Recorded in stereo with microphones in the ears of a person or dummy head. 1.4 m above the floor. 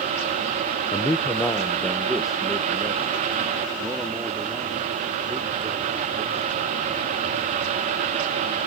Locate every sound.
0.9 s a man speaking: 20° left (ahead or behind); by 6.5 s 10° right (ahead or behind)